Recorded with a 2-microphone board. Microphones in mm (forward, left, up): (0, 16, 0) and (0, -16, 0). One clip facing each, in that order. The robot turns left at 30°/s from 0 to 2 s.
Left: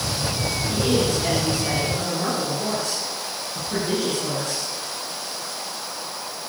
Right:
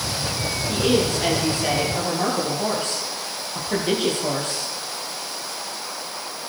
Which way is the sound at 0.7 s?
30° right.